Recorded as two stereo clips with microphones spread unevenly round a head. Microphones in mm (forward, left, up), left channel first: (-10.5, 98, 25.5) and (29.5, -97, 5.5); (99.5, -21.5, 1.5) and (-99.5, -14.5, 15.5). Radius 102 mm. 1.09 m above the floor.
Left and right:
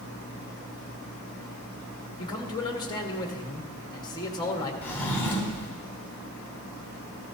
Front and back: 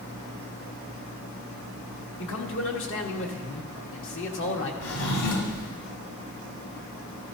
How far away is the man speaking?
About 1.6 m.